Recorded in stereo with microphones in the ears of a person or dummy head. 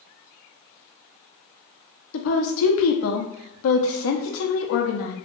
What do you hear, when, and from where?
2.1 s a woman speaking: 65° left (ahead or behind), 0.6 m